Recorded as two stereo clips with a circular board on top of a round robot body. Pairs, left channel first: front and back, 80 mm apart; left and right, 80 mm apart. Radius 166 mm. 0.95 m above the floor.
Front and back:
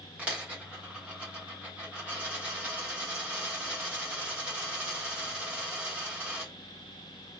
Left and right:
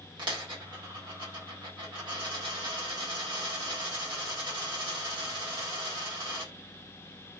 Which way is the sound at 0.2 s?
105° right.